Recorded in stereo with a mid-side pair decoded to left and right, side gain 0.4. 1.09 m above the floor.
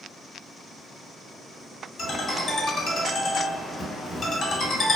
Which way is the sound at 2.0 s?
50° left.